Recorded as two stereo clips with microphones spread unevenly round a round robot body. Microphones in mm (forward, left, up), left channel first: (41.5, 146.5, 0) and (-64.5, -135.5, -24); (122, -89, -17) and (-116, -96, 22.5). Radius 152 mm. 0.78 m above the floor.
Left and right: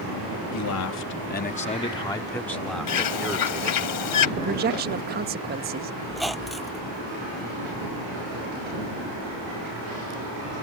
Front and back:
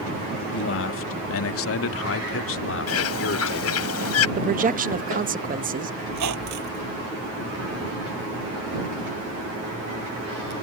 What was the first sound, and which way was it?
A man speaking, 35° left.